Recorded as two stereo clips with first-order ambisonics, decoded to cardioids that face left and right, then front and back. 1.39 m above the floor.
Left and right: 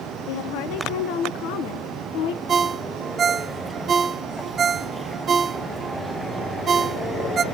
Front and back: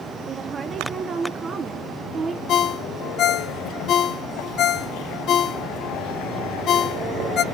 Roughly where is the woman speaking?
Left.